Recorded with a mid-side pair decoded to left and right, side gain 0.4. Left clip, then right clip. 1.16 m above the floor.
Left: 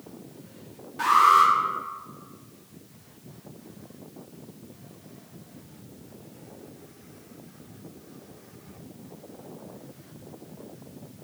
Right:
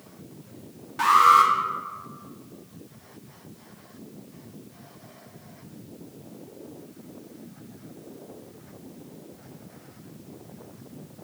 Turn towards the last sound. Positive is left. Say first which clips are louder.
# right 1 dB
turn(degrees=-70)